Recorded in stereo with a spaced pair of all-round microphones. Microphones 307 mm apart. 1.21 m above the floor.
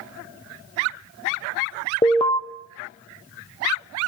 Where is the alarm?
15° left (ahead or behind), 0.5 m.